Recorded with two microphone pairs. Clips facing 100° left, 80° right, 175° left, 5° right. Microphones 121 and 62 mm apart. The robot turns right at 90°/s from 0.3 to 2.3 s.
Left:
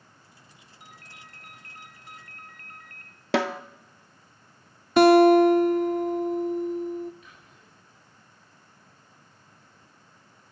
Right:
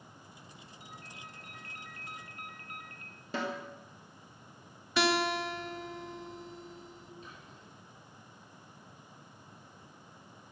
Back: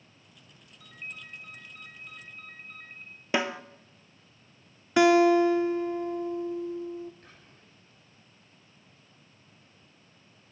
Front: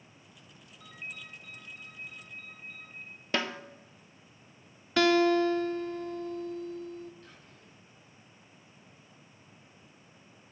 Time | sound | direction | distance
0.8 | a ringtone | 75° left | 1.4 m
3.3 | a snare drum | 100° left | 0.6 m
5.0 | a guitar | 105° left | 0.6 m
7.2 | whispering | 135° right | 7 m